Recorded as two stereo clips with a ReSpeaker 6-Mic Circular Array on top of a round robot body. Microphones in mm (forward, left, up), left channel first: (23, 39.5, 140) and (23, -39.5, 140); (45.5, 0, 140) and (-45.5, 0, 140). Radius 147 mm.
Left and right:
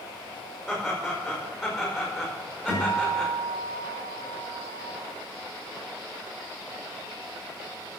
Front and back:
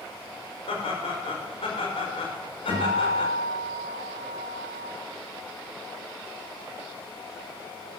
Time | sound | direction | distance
0.7 | laughter | straight ahead | 5 m
2.7 | a guitar | 15° right | 6 m